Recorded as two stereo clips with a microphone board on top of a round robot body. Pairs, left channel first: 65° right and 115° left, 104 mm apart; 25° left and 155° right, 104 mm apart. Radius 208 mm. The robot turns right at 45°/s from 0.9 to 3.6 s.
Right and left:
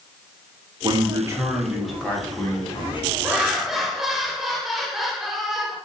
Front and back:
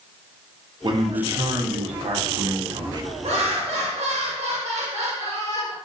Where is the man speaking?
155° left, 1.1 m; by 3.1 s 105° right, 1.1 m.